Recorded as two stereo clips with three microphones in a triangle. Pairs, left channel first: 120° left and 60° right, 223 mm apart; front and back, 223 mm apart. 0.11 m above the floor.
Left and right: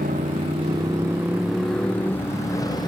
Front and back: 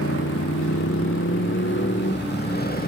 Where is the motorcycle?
10° right; by 2.9 s 50° left.